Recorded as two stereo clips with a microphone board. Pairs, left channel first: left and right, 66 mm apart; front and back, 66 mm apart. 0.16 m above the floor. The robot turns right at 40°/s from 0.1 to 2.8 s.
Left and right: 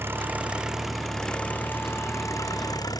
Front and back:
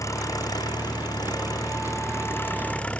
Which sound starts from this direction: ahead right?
An engine running, at 0.0 s.